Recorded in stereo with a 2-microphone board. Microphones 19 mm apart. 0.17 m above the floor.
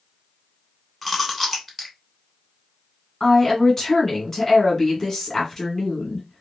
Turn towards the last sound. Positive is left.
turn(degrees=10)  # may be behind; listen again after turning